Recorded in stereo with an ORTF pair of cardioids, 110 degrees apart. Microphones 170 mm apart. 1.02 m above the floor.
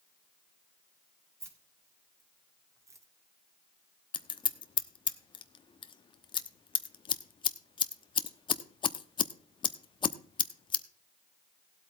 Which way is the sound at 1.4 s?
15° right.